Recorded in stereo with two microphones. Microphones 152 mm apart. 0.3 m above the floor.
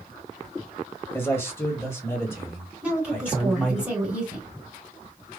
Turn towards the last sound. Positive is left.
turn(degrees=-10)  # may be behind; listen again after turning